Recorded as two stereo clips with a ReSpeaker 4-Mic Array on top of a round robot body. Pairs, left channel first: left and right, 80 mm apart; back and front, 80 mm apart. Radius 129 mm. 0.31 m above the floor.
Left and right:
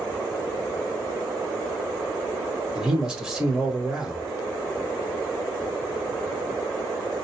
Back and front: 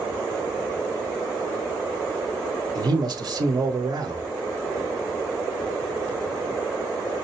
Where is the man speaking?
5° right, 1.8 m.